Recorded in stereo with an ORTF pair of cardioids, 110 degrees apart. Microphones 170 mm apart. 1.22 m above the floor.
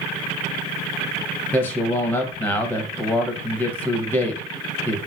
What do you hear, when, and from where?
1.5 s a man speaking: 10° left, 0.6 m